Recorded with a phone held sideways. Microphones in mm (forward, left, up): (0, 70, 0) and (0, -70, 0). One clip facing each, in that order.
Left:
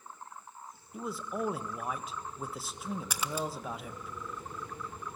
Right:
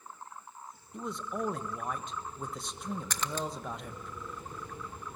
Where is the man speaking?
5° left (ahead or behind), 1.3 m.